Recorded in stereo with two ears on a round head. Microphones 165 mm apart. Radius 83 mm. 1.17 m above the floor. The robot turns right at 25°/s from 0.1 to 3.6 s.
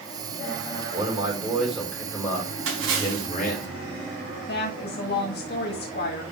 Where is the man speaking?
20° right, 4.5 m; by 3.7 s 45° left, 4.5 m.